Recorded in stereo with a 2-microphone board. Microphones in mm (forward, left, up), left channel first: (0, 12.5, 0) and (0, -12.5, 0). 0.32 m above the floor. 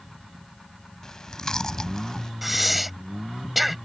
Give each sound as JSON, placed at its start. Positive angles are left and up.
{"t": 1.0, "sound": "chewing", "side_deg": 25}
{"t": 2.4, "sound": "breathing", "side_deg": -5}